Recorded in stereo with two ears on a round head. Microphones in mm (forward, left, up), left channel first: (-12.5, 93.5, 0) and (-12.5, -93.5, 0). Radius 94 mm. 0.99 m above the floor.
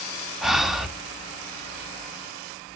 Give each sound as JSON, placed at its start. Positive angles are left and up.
{"t": 0.4, "sound": "breathing", "side_deg": 0, "distance_m": 0.8}